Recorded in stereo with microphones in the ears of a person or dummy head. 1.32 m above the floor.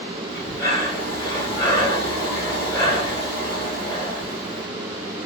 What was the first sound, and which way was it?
Breathing, 20° left (ahead or behind).